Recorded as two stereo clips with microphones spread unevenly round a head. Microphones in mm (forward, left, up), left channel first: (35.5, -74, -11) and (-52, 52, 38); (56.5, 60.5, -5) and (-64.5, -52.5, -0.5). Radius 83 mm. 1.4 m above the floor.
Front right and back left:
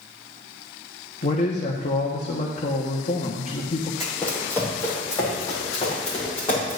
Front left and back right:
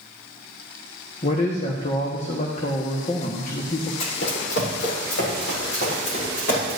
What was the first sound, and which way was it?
A man speaking, 10° right.